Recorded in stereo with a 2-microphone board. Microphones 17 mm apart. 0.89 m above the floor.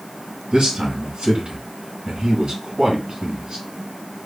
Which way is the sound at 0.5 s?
55° right (ahead or behind).